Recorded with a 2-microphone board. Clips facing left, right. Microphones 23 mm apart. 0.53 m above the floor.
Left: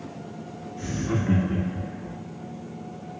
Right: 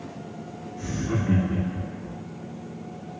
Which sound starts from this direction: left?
Laughter, at 0.8 s.